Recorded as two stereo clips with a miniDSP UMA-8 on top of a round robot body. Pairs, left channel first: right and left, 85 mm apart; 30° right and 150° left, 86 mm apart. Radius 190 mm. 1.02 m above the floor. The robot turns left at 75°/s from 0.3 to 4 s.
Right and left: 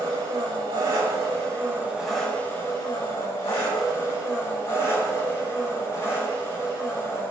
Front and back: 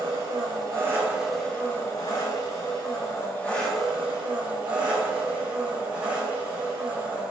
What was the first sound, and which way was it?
An engine running, 135° left.